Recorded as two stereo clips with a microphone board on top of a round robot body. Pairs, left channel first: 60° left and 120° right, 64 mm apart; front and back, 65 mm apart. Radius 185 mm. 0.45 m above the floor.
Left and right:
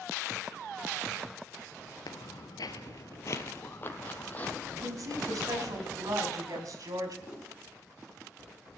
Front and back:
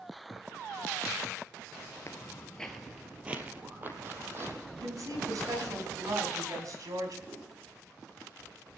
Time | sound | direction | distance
2.1 | footsteps | 50° left | 0.8 m
4.7 | a woman speaking | 150° right | 4.5 m
7.3 | a whoosh | 160° left | 7.5 m